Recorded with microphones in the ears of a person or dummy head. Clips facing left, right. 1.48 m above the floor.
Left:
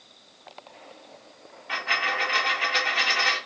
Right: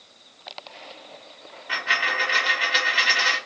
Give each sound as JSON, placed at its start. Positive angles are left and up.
{"t": 1.7, "sound": "a dropped coin", "side_deg": -15, "distance_m": 1.9}